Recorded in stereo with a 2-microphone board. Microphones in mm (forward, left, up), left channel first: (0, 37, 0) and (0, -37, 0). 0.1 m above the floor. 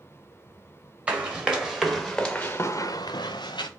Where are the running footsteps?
15° right (ahead or behind), 2.0 m; by 3.7 s 75° left (ahead or behind), 1.1 m.